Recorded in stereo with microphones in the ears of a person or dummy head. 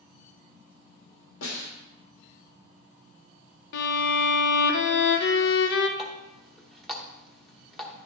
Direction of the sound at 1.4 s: 75° left (ahead or behind).